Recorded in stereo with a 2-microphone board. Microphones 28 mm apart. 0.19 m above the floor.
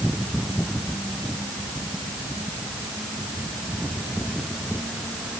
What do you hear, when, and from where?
Only background noise.